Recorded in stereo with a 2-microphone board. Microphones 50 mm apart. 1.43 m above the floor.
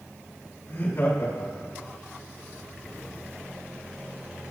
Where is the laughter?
60° left (ahead or behind), 5.5 m; by 1.9 s 70° left (ahead or behind), 5.5 m.